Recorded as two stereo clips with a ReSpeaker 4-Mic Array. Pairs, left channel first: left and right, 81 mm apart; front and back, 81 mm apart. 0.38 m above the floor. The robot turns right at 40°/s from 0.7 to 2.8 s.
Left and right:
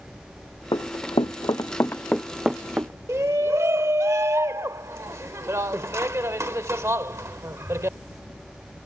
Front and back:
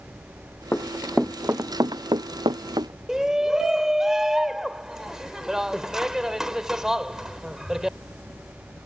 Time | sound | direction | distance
0.7 | running footsteps | 65° left | ?
3.1 | a shout | 100° right | ?